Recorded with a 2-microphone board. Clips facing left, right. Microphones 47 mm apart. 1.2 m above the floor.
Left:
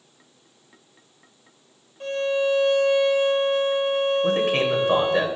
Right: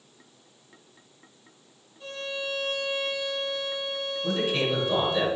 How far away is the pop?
No pop in this recording.